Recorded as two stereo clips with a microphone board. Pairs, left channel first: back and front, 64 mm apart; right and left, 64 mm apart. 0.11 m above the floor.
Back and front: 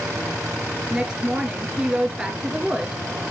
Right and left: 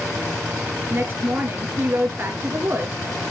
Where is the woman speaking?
70° left, 1.4 m.